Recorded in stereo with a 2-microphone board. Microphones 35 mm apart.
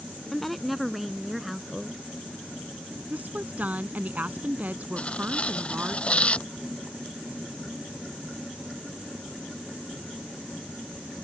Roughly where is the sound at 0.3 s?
Centre.